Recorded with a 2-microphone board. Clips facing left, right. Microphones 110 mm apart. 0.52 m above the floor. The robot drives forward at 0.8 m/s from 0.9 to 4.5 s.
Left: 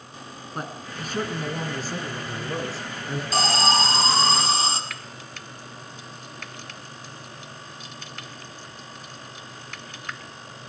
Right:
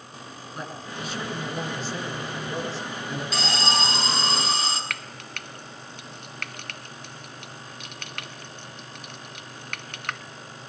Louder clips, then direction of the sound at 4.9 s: Right 2 dB; 70° right (ahead or behind).